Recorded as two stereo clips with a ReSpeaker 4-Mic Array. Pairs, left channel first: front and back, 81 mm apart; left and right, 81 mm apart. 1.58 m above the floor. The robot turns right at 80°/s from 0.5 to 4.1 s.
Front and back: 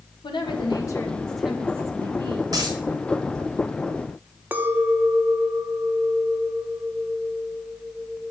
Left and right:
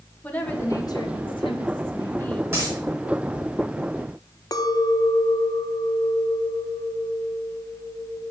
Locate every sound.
0.2 s a woman speaking: 20° left, 1.8 m; by 2.4 s 170° left, 1.8 m
2.5 s a dropped coin: 155° right, 4.5 m; by 2.8 s 135° right, 4.5 m
4.5 s a clink: 115° left, 0.8 m